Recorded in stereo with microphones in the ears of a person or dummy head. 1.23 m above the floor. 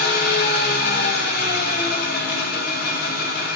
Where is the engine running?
60° left (ahead or behind), 2 m.